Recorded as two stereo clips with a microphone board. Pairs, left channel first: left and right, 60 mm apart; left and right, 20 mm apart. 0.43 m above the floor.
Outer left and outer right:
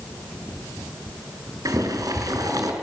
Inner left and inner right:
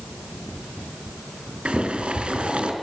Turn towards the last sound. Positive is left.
turn(degrees=-75)  # may be behind; listen again after turning